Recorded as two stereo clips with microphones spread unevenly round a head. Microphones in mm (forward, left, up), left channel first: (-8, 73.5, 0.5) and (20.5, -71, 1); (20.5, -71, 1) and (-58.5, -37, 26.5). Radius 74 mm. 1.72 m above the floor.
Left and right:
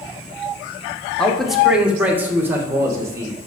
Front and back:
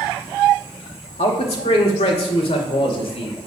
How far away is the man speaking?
About 1.2 m.